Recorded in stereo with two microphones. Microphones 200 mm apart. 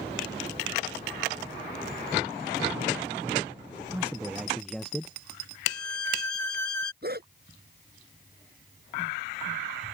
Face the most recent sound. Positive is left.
turn(degrees=-55)  # may be behind; listen again after turning